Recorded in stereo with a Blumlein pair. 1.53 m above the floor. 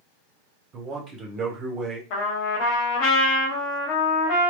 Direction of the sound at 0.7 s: 30° right.